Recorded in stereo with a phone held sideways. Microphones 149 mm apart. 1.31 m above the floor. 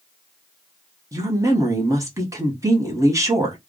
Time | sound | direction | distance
1.1 | a woman speaking | 20° right (ahead or behind) | 1.2 m